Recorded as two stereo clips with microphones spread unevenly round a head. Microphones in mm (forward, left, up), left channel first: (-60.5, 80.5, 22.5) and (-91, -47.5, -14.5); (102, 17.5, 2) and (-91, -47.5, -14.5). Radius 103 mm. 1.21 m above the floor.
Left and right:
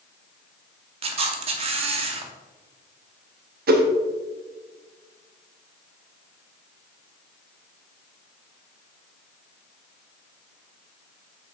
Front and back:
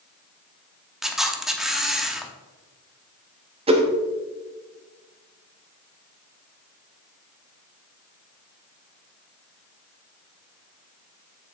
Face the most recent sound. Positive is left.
turn(degrees=-100)